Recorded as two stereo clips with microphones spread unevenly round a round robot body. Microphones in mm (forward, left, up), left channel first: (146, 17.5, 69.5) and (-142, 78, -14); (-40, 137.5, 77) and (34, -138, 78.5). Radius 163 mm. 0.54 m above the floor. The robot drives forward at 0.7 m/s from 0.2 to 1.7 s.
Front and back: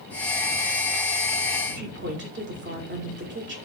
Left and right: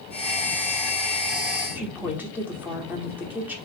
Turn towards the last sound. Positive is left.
turn(degrees=-160)